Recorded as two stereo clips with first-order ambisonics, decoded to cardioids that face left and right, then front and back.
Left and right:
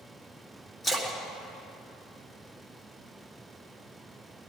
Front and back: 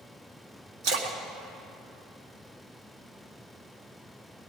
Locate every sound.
0.8 s a splash: 165° left, 1.9 m